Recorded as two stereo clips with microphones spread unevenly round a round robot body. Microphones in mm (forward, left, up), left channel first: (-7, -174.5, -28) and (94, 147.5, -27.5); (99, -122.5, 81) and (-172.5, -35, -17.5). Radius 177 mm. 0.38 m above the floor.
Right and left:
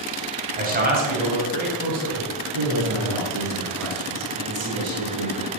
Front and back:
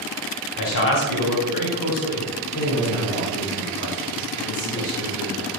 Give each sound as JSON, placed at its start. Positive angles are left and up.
{"t": 0.6, "sound": "a man speaking", "azimuth_deg": 10, "distance_m": 2.5}
{"t": 2.5, "sound": "a man speaking", "azimuth_deg": 30, "distance_m": 3.5}